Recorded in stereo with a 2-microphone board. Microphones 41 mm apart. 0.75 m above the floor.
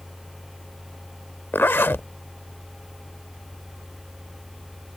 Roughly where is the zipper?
Left.